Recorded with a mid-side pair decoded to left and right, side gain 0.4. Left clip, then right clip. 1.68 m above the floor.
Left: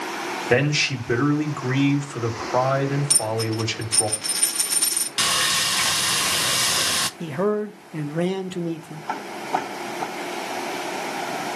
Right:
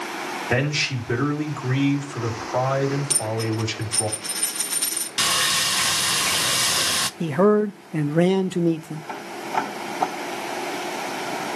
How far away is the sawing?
About 0.8 m.